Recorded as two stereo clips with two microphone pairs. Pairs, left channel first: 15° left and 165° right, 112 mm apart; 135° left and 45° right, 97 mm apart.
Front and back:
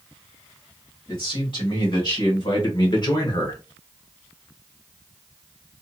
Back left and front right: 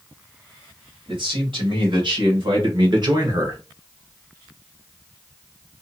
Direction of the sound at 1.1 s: 25° right.